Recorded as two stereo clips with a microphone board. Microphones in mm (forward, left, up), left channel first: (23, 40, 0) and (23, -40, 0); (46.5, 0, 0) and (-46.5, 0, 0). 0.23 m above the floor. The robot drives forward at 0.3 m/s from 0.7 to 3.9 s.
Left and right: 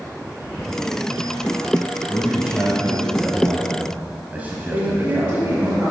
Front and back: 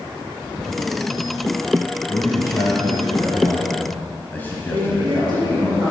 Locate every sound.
2.1 s a man speaking: 25° right, 1.4 m; by 5.7 s 45° right, 1.1 m
4.7 s a woman speaking: 140° right, 3 m